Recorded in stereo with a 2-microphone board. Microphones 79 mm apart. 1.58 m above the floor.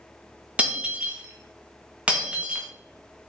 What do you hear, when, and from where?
0.6 s breaking glass: 15° right (ahead or behind), 1.0 m